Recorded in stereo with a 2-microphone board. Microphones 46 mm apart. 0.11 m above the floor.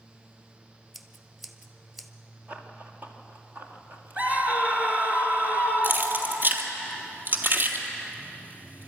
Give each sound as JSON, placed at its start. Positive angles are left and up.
{"t": 0.9, "sound": "scissors", "side_deg": 0, "distance_m": 0.9}
{"t": 2.5, "sound": "running footsteps", "side_deg": -30, "distance_m": 2.5}
{"t": 4.2, "sound": "a scream", "side_deg": -30, "distance_m": 2.0}
{"t": 5.8, "sound": "keys jangling", "side_deg": -40, "distance_m": 1.8}